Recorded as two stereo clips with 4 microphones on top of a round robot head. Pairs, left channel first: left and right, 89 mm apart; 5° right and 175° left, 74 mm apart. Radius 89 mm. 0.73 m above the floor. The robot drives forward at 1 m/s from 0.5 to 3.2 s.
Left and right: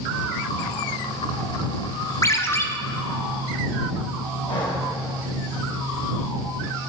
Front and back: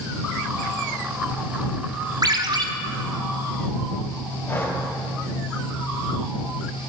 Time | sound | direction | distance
2.2 | a ringtone | 145° left | 1.0 m
4.5 | breathing | 55° left | 3.5 m